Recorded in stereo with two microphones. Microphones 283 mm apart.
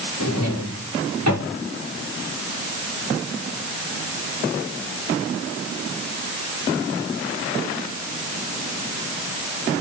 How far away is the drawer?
About 8 m.